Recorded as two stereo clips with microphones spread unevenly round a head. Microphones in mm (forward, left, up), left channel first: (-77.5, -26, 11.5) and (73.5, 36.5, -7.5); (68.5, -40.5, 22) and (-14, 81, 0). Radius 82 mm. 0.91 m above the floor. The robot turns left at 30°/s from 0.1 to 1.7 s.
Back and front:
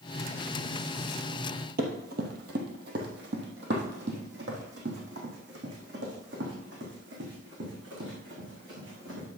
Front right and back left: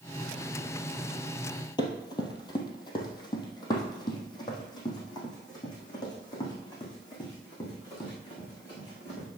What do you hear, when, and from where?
1.8 s running footsteps: 5° right, 1.7 m; by 9.3 s 5° left, 5.5 m